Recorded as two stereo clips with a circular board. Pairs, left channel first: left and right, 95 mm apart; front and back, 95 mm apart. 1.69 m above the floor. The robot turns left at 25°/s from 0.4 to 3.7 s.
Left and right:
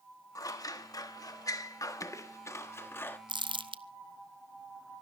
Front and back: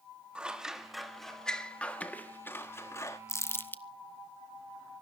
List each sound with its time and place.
0.3 s scissors: 105° left, 1.3 m; by 3.2 s 35° left, 1.3 m
3.3 s crumpling: 60° right, 0.7 m; by 3.8 s 70° right, 0.7 m